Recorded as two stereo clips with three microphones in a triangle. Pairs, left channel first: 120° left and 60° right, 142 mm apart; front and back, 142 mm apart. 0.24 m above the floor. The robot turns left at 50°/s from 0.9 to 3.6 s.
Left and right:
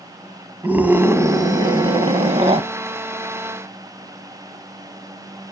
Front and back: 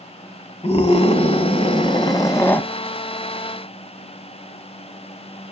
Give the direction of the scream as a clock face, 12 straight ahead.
12 o'clock.